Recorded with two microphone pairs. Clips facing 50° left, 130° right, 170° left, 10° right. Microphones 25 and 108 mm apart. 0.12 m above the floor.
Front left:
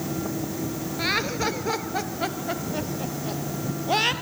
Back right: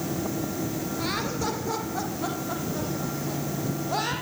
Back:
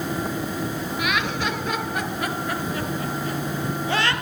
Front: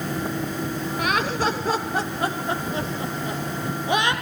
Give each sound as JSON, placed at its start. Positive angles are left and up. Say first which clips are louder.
{"t": 1.0, "sound": "laughter", "louder": "front left 6 dB, front 3 dB", "azimuth_deg": 20, "distance_m": 2.5}